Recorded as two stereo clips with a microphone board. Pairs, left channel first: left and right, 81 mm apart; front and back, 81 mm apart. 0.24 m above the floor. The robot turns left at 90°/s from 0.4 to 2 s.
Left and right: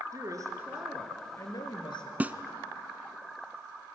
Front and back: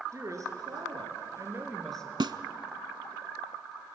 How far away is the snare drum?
About 0.6 m.